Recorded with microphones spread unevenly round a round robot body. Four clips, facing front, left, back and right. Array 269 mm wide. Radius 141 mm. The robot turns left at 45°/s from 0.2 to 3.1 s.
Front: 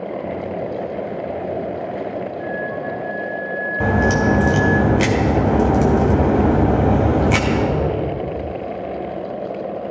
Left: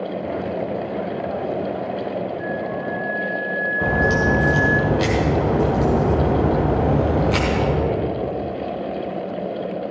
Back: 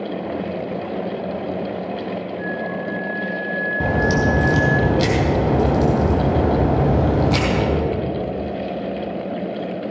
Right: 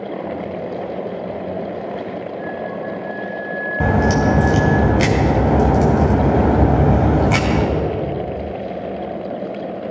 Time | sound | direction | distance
2.4 | a flute | 145° left | 2 m
3.8 | a crack | 100° right | 3 m